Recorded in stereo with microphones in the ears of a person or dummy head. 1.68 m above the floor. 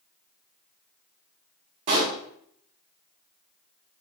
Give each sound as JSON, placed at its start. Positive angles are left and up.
{"t": 1.9, "sound": "a pop", "side_deg": -40, "distance_m": 1.4}